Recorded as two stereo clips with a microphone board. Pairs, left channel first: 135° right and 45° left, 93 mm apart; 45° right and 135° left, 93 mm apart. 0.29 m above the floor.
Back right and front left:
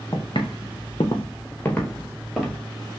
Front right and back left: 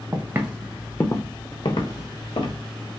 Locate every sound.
0.1 s footsteps: 170° right, 1.5 m; by 2.6 s 45° right, 2.5 m